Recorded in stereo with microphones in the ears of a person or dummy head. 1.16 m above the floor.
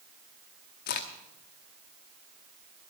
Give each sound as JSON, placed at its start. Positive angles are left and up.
{"t": 0.9, "sound": "a crack", "side_deg": 45, "distance_m": 0.8}